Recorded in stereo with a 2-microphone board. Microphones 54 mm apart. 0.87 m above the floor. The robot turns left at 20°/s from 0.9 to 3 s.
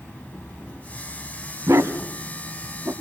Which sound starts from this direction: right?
A dog barking, at 1.7 s.